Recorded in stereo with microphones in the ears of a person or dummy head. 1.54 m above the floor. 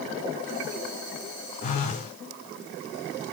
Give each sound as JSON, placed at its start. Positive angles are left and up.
{"t": 1.6, "sound": "a phone buzzing", "side_deg": 40, "distance_m": 0.7}